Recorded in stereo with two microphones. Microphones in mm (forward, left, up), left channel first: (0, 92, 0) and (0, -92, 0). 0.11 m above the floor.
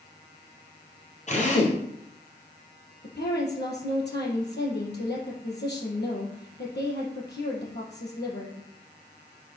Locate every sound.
1.3 s a drill: 40° left (ahead or behind), 3.5 m
3.0 s a woman speaking: 65° left (ahead or behind), 4 m